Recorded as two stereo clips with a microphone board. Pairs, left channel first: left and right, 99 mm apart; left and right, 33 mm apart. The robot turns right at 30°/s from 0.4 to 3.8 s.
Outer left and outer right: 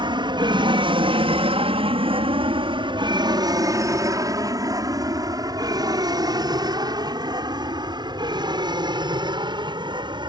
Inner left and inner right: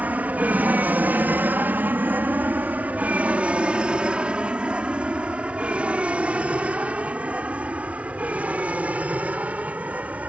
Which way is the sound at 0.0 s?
55° right (ahead or behind).